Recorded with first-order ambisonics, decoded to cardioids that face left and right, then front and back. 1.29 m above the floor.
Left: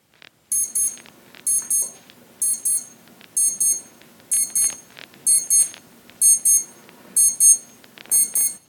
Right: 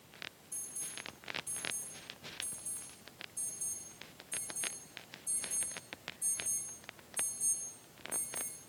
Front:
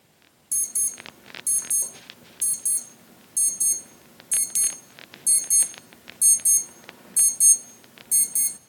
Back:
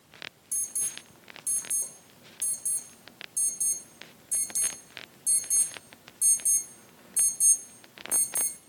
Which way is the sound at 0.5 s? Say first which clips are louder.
Left 18 dB, front 7 dB; 70° left.